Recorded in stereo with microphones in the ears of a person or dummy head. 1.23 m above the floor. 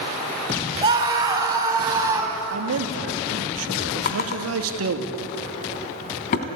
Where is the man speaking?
80° right, 2.5 m.